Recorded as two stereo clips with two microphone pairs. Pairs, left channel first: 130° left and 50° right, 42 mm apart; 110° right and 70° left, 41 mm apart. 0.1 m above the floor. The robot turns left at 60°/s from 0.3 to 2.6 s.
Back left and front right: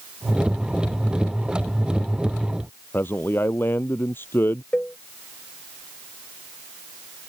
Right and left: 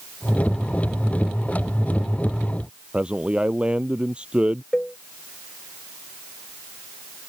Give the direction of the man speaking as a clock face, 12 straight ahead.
8 o'clock.